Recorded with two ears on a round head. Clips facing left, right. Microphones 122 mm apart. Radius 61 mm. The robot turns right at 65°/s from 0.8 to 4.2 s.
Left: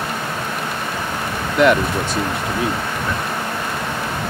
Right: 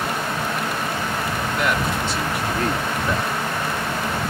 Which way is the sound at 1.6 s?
100° left.